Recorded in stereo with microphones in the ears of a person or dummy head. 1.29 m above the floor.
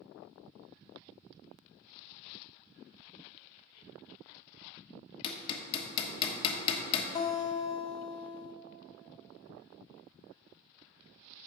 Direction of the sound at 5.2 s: 35° left (ahead or behind).